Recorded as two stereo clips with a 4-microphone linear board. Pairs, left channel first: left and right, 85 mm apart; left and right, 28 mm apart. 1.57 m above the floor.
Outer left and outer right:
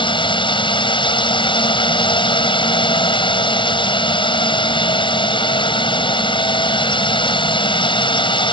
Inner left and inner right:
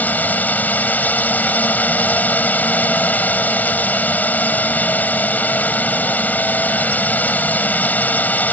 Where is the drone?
70° left (ahead or behind).